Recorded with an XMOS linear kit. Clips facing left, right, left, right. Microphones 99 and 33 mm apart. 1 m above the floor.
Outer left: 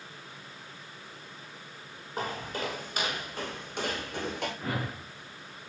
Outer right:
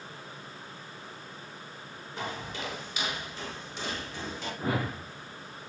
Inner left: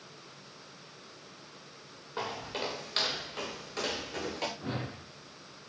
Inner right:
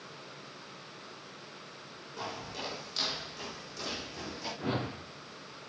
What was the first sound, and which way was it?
Footsteps, 45° left (ahead or behind).